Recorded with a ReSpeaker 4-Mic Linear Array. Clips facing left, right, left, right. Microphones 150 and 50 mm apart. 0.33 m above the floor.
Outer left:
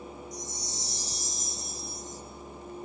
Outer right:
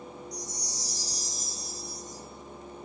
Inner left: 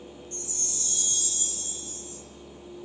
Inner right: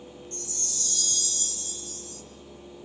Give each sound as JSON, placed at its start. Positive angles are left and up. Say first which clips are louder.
{"t": 0.3, "sound": "a chime", "louder": "even, even", "side_deg": 25, "distance_m": 0.8}